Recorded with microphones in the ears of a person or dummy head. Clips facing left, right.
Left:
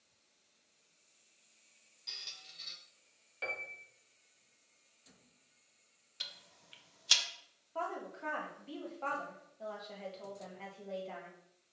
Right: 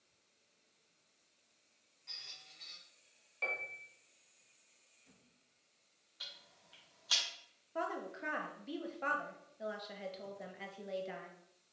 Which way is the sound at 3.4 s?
15° left (ahead or behind).